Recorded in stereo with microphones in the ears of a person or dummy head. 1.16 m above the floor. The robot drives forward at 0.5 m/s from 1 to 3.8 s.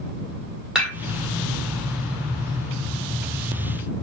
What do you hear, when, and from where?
0.8 s dishes clattering: 5° right (ahead or behind), 1.7 m